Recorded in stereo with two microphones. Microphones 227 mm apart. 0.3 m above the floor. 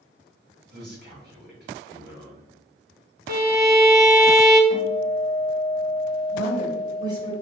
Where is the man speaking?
45° right (ahead or behind), 1.8 m.